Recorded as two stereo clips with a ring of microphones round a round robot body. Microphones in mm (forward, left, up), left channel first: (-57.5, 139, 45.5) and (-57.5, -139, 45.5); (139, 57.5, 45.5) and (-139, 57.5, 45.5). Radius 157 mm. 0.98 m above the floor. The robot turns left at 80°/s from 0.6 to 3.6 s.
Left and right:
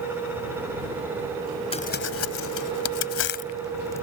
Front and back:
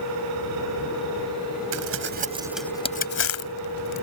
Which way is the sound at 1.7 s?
160° left.